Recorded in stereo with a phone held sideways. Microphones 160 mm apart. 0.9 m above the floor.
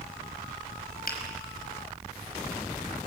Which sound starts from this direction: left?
A finger snap, at 1.1 s.